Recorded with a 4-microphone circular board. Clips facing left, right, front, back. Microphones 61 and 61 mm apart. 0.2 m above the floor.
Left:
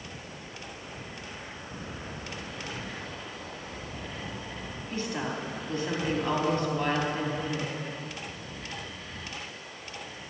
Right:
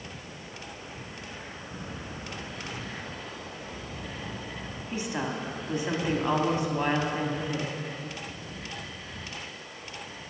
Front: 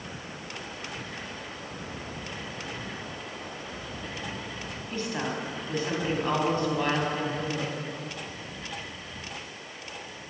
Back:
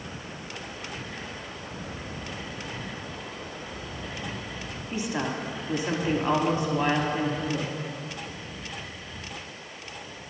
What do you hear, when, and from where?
4.9 s a woman speaking: 130° right, 1.0 m